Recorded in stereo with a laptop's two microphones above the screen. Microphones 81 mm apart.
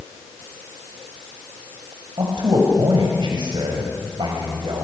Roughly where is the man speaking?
Right.